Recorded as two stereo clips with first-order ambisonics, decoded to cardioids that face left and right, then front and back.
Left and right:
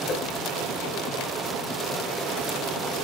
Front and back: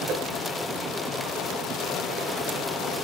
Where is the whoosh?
135° left, 1.0 m.